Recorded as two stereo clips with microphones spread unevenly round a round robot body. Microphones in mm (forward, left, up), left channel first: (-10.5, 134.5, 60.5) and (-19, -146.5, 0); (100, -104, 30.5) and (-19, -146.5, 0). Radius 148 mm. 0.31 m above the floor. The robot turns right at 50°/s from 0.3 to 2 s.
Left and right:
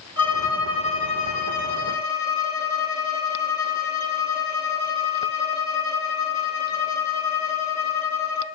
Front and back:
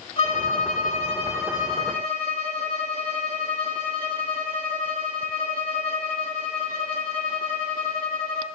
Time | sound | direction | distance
0.2 | a violin | 10° right | 3 m